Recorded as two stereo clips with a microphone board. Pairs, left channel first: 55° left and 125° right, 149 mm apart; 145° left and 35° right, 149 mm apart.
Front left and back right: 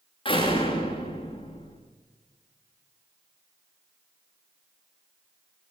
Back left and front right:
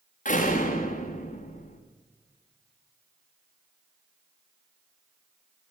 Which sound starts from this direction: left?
A door slam, at 0.2 s.